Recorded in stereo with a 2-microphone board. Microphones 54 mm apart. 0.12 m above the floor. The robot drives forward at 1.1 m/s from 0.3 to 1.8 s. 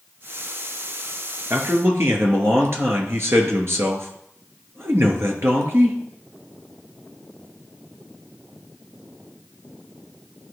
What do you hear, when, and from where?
1.5 s a man speaking: 50° right (ahead or behind), 2.5 m